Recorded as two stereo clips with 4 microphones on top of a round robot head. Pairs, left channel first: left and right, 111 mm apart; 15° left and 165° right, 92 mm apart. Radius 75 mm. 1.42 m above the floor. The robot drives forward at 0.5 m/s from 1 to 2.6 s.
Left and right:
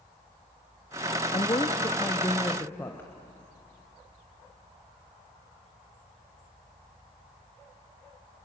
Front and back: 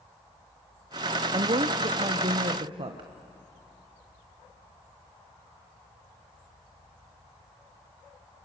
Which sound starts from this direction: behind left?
A woman speaking, at 1.3 s.